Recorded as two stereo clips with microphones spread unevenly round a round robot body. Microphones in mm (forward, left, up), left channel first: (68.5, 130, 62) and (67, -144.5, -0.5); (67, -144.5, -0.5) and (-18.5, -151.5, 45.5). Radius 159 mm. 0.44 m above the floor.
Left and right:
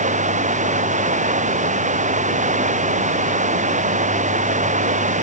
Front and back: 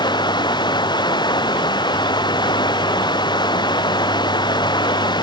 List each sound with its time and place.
0.0 s running water: 25° right